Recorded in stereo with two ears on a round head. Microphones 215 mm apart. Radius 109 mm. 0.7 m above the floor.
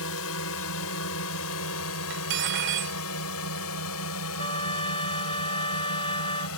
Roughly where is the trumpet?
Left.